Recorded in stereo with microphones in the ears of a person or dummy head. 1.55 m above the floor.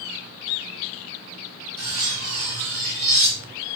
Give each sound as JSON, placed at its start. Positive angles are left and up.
{"t": 1.8, "sound": "cutlery clinking", "side_deg": -55, "distance_m": 1.4}